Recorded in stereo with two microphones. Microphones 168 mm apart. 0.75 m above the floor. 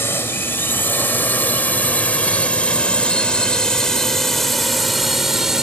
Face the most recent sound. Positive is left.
turn(degrees=-5)  # may be behind; listen again after turning